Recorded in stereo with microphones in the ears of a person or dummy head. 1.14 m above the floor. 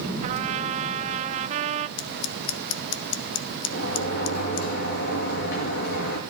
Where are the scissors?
65° left (ahead or behind), 0.6 m.